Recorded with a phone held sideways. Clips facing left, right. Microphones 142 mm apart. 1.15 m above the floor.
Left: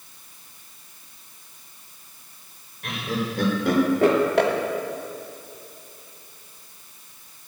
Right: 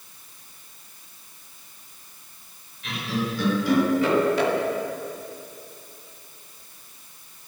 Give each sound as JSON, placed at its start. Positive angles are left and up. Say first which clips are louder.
{"t": 2.8, "sound": "laughter", "louder": "even", "side_deg": 55, "distance_m": 4.5}